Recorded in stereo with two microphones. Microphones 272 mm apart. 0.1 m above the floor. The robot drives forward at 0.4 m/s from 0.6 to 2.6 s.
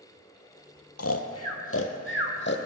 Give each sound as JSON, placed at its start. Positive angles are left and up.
{"t": 1.0, "sound": "snoring", "side_deg": 65, "distance_m": 0.9}